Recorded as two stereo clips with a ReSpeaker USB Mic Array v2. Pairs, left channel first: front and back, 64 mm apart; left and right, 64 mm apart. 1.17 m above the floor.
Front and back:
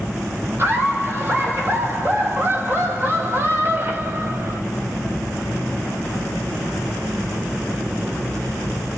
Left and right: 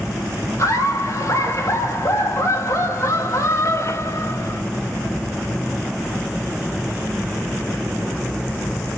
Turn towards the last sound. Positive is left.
turn(degrees=130)